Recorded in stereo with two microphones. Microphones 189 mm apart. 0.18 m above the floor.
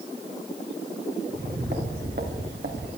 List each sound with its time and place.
1.3 s footsteps: 55° right (ahead or behind), 4 m; by 2.9 s 70° right (ahead or behind), 4 m